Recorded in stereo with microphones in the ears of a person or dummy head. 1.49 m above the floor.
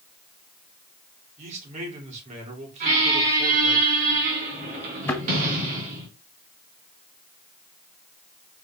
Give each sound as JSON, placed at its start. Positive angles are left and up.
{"t": 1.4, "sound": "a man speaking", "side_deg": -35, "distance_m": 3.5}
{"t": 2.8, "sound": "a squeak", "side_deg": -40, "distance_m": 2.5}
{"t": 5.1, "sound": "a thud", "side_deg": 10, "distance_m": 1.8}